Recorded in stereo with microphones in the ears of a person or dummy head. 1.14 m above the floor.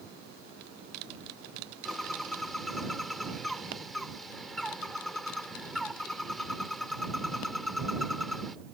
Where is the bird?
5° left (ahead or behind).